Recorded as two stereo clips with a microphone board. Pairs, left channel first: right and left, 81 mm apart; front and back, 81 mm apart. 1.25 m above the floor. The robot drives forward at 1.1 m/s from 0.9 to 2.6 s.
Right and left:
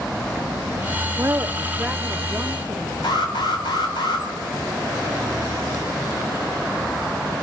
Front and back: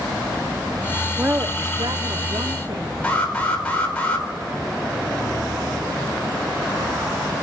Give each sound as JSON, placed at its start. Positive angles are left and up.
{"t": 1.2, "sound": "a woman speaking", "azimuth_deg": 115, "distance_m": 0.5}
{"t": 3.0, "sound": "an alarm", "azimuth_deg": -75, "distance_m": 3.5}